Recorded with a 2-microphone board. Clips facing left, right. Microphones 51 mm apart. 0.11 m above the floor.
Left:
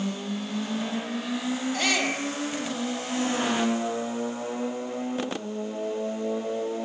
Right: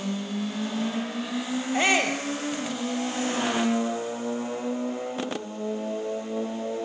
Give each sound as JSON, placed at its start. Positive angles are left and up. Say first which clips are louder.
{"t": 1.7, "sound": "a shout", "louder": "right 6 dB", "side_deg": -25, "distance_m": 3.5}